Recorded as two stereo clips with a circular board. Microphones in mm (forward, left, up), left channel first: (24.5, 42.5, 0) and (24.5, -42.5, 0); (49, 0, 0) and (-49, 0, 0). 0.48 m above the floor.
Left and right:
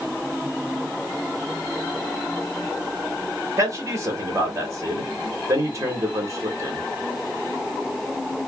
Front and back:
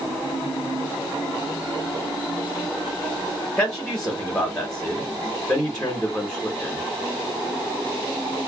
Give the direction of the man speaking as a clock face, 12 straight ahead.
2 o'clock.